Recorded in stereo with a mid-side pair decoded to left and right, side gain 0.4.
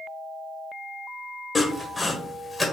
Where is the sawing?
25° left, 0.9 m.